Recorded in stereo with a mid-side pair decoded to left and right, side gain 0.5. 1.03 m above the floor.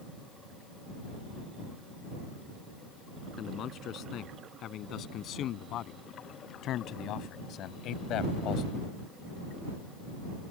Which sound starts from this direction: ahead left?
A man speaking, at 3.4 s.